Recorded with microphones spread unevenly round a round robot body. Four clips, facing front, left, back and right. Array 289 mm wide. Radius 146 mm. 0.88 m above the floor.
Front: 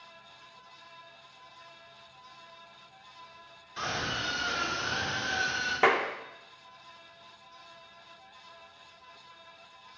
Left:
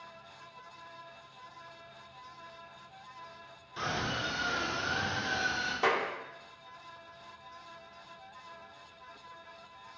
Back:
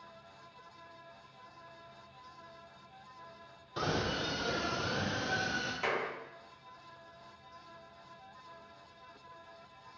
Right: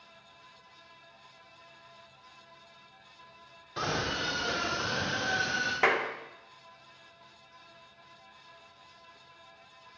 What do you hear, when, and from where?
3.8 s a scream: 155° right, 2.5 m; by 5.7 s 145° right, 4.5 m
5.8 s a clap: 15° right, 2 m